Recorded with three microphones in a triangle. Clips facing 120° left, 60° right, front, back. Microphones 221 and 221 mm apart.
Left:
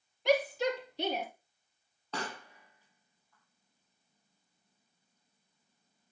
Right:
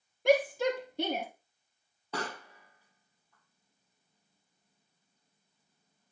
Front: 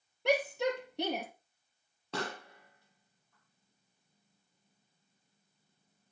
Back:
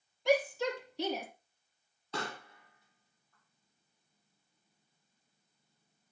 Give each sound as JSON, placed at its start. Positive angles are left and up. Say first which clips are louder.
{"t": 0.2, "sound": "a shout", "louder": "right 3 dB, back 1 dB", "azimuth_deg": -20, "distance_m": 5.0}
{"t": 2.1, "sound": "a pop", "louder": "right 2 dB, front 2 dB", "azimuth_deg": 20, "distance_m": 4.5}